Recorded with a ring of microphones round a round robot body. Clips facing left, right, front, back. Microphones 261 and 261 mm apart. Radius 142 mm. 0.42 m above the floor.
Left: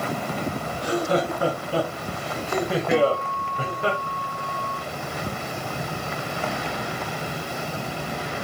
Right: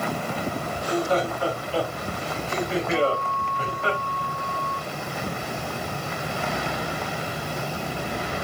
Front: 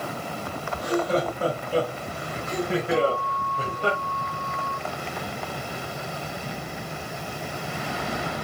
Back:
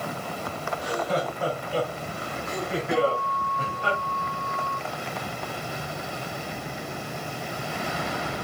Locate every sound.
0.7 s laughter: 65° left, 4 m; by 3.9 s 55° left, 2.5 m
2.9 s a guitar: 100° left, 4.5 m